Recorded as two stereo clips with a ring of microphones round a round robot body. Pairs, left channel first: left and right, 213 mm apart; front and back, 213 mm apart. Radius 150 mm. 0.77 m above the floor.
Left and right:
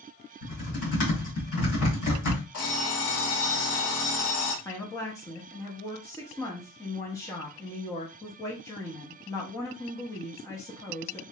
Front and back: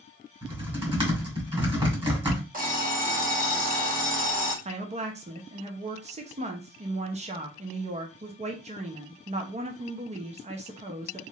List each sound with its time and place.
0.4 s typing on a keyboard: 115° left, 2 m
2.5 s an alarm clock: 130° left, 1.6 m
4.7 s a woman speaking: 155° left, 0.7 m